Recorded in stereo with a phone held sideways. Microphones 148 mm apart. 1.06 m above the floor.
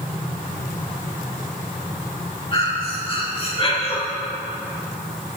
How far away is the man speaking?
I don't hear a man speaking.